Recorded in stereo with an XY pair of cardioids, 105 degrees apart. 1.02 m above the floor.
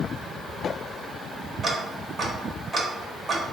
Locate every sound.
1.6 s ticking: 30° right, 0.7 m